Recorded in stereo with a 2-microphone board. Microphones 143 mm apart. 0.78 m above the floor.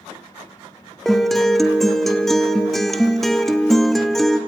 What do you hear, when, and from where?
1.1 s a guitar: centre (ahead or behind), 1.1 m